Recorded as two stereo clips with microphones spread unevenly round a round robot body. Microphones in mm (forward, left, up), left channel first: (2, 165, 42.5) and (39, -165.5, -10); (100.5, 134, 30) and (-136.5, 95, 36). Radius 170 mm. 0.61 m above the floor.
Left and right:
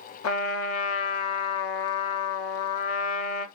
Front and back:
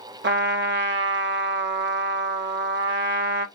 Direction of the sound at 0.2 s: 145° left.